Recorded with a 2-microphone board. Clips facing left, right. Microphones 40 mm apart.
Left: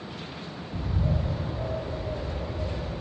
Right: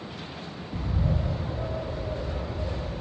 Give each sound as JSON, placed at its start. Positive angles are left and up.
{"t": 0.7, "sound": "a bird", "side_deg": -30, "distance_m": 3.5}